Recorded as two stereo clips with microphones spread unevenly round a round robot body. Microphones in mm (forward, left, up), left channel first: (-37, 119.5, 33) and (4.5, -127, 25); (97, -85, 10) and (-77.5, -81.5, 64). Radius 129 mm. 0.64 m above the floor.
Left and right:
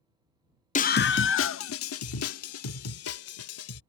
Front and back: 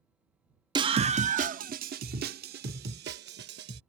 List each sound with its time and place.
0.8 s a scream: 100° left; by 3.8 s 130° left